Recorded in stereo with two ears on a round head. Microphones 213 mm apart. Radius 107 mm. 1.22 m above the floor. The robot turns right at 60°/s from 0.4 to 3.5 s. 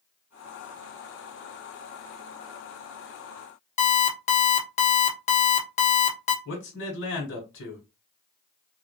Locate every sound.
3.8 s an alarm clock: 30° left (ahead or behind), 0.6 m
6.5 s a man speaking: 60° left (ahead or behind), 1.4 m